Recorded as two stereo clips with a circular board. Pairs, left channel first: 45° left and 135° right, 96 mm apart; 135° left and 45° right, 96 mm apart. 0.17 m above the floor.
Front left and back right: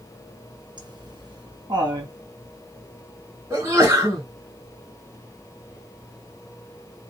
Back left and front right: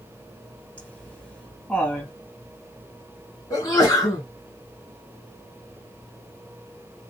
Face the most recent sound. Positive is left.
turn(degrees=175)